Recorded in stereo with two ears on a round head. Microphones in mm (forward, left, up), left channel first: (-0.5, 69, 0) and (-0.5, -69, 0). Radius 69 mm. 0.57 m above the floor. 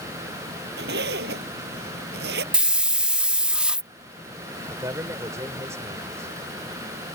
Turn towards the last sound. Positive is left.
turn(degrees=-20)  # may be behind; listen again after turning